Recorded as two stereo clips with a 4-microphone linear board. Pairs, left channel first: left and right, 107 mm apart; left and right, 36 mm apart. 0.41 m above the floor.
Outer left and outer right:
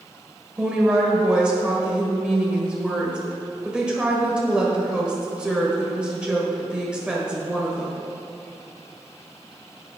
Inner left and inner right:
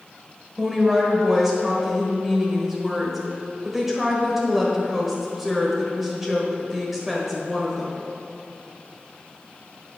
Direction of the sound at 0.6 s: 10° right (ahead or behind).